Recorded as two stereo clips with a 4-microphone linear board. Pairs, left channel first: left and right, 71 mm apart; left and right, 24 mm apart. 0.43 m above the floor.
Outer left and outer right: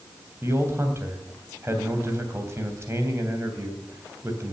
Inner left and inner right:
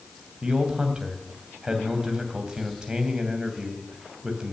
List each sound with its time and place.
0.4 s a man speaking: 35° right (ahead or behind), 3 m